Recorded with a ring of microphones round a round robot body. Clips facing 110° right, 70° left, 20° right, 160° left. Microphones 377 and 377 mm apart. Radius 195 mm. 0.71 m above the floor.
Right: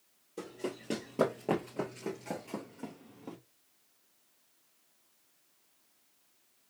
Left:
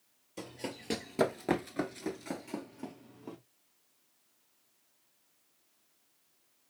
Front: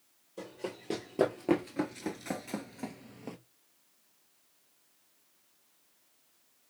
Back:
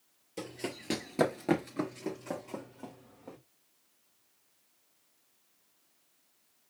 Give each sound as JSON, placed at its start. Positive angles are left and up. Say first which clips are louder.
{"t": 0.4, "sound": "running footsteps", "louder": "right 3 dB, back 1 dB", "azimuth_deg": 130, "distance_m": 1.1}